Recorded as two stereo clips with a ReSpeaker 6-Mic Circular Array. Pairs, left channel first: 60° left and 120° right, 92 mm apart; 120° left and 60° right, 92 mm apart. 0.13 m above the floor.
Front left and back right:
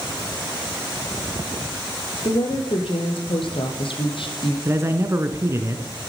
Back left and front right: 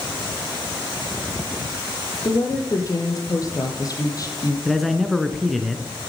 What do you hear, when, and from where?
2.2 s a woman speaking: 70° left, 3 m
4.7 s a man speaking: 150° right, 1.2 m